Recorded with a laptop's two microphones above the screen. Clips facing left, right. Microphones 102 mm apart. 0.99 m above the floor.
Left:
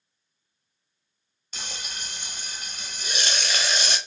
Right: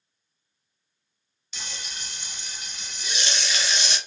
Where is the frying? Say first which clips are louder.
Left 2 dB; 45° left (ahead or behind), 0.6 m.